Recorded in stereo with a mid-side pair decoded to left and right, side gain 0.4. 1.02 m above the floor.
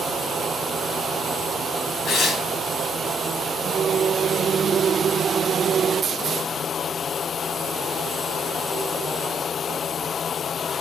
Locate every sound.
2.0 s tearing paper: 70° left, 2.5 m